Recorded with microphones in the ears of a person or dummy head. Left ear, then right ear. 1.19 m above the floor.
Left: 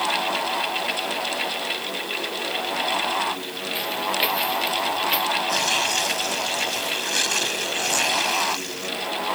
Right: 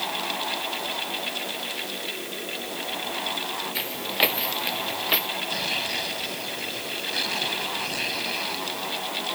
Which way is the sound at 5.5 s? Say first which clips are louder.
Left 5 dB; 45° left (ahead or behind).